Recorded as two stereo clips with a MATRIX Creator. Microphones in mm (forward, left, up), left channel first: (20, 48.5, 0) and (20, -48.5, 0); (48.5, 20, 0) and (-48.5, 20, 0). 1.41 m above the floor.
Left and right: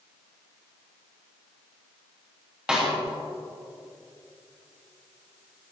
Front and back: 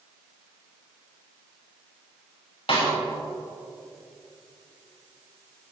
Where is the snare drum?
10° right, 6 m.